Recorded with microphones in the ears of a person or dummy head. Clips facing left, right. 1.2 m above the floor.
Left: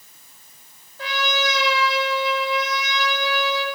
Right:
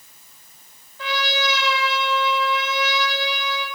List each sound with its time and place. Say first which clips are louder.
1.0 s a trumpet: even; 50° left (ahead or behind), 7 m